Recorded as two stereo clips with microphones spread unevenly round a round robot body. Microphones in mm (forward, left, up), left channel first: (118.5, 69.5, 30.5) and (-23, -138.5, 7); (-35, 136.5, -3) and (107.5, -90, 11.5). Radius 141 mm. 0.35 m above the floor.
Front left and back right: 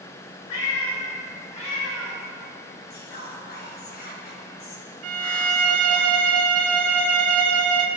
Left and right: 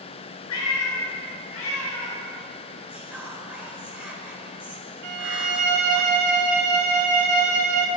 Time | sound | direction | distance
0.5 | a cat meowing | 90° left | 1.5 m
2.9 | whispering | 25° left | 1.2 m
5.0 | a violin | 95° right | 0.7 m